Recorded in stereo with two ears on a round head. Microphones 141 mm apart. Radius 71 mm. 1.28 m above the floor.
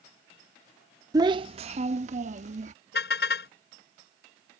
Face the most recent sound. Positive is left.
turn(degrees=75)  # may be behind; listen again after turning